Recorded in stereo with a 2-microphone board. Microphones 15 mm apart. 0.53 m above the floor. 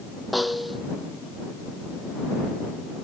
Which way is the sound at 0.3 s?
10° right (ahead or behind).